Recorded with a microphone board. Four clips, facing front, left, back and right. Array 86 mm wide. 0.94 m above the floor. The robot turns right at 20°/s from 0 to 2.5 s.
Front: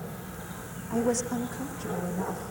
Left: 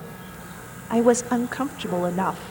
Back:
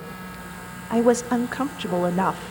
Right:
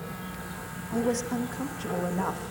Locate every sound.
0.9 s a woman speaking: 130° left, 1.2 m; by 2.5 s 160° left, 1.2 m